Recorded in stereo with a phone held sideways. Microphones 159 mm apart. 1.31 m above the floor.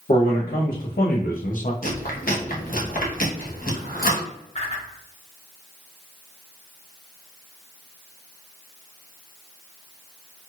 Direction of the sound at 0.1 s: 75° left (ahead or behind).